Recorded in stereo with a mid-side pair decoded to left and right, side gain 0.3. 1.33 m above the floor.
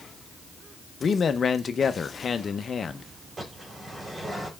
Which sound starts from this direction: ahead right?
A bird, at 3.4 s.